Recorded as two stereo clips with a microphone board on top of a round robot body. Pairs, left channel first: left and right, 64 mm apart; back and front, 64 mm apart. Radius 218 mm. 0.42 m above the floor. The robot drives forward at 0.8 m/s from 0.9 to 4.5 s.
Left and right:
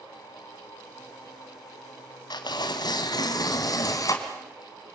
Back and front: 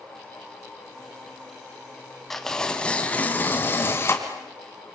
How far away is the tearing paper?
About 2 m.